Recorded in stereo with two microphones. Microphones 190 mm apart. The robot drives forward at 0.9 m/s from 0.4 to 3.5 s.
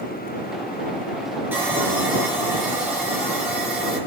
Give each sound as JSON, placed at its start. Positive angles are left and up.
{"t": 1.5, "sound": "sawing", "side_deg": -10, "distance_m": 5.5}